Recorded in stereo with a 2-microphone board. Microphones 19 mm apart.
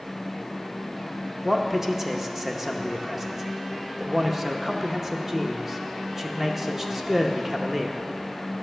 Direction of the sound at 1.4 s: 15° right (ahead or behind).